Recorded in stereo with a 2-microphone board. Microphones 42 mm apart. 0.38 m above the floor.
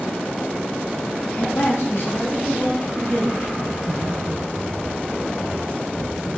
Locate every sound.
1.4 s a man speaking: 50° left (ahead or behind), 2.5 m; by 3.5 s 60° left (ahead or behind), 3.5 m
3.6 s typing on a keyboard: 40° left (ahead or behind), 3 m